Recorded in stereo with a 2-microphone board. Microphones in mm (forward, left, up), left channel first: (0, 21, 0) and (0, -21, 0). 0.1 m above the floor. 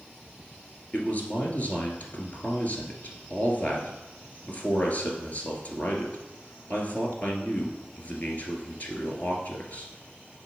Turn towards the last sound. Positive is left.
turn(degrees=40)  # may be behind; listen again after turning